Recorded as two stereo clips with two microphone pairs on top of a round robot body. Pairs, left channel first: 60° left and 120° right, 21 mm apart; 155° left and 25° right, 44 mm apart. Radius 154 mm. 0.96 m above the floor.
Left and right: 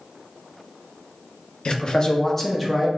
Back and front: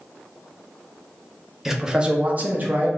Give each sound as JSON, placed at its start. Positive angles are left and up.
{"t": 1.6, "sound": "a man speaking", "azimuth_deg": 55, "distance_m": 0.8}